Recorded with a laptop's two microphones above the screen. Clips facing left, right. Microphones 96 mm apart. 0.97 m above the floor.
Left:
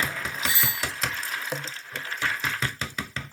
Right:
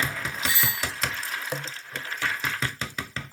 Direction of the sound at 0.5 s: 25° left (ahead or behind).